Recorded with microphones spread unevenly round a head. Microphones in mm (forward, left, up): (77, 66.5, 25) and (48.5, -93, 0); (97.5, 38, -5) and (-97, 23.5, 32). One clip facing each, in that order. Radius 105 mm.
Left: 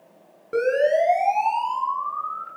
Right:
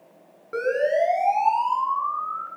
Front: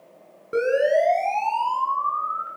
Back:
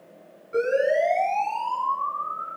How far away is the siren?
About 9.5 m.